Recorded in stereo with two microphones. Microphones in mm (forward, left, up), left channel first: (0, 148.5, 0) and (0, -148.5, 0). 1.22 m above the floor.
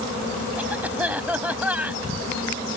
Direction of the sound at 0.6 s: 5° right (ahead or behind).